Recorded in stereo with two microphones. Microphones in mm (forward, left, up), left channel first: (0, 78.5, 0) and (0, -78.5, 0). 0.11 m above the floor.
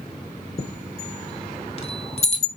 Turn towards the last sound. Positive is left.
turn(degrees=40)  # may be behind; listen again after turning